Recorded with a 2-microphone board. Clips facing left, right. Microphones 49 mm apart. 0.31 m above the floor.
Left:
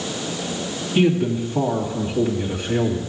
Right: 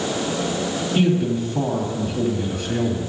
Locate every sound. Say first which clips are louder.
0.9 s a man speaking: left 2 dB; 15° left (ahead or behind), 2 m